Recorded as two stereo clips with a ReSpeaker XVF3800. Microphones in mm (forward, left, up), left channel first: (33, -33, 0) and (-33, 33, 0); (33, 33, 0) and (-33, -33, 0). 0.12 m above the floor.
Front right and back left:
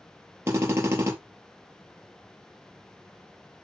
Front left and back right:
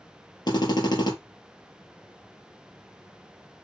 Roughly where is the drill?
Left.